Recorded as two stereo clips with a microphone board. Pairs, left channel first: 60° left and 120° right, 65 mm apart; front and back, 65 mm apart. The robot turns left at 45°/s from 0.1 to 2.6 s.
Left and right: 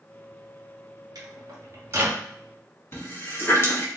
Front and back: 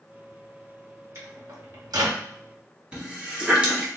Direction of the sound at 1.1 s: 130° right.